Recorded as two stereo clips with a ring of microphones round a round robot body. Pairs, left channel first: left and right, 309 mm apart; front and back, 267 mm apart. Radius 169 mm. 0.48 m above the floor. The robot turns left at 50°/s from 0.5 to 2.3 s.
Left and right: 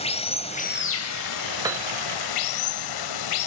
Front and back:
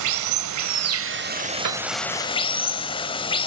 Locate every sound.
0.0 s running water: 165° left, 1.1 m; by 3.5 s 75° left, 1.1 m
1.6 s a piano: 170° right, 1.6 m; by 1.9 s straight behind, 1.6 m